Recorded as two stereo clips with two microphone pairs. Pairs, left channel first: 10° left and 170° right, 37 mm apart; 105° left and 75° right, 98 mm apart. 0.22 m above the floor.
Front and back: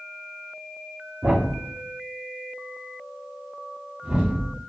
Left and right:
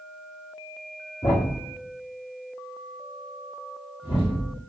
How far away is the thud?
About 2 m.